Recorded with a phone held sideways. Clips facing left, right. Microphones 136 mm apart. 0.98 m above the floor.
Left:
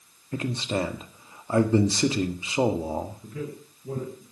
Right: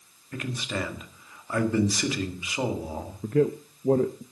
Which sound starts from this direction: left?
A man speaking, at 0.3 s.